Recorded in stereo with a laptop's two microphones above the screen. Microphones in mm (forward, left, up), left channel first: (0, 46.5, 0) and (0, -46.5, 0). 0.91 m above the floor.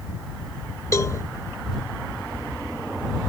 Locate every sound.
0.9 s a cowbell: 35° left (ahead or behind)